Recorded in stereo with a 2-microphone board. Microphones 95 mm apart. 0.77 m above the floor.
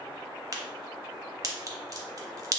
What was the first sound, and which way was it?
A crack, 40° right (ahead or behind).